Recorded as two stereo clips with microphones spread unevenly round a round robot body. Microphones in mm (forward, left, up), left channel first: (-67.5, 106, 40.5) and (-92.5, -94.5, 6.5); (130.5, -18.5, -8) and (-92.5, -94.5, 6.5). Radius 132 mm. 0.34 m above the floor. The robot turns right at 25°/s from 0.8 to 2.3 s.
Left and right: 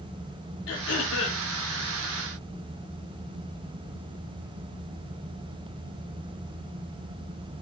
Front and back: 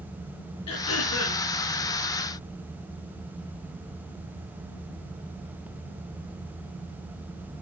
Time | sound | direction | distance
0.7 | throat clearing | 45° left | 2.5 m